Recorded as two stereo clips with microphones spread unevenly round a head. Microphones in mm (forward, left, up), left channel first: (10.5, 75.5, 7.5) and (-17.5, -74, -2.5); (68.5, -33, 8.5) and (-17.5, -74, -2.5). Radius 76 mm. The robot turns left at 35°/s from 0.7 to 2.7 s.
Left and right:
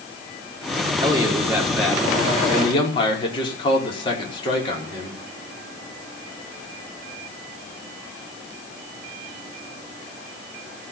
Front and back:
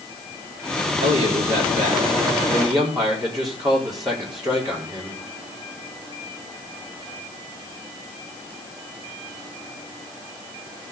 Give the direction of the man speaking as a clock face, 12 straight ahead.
5 o'clock.